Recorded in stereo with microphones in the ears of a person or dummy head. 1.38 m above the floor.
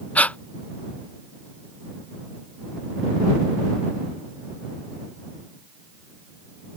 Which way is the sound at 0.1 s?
15° left (ahead or behind).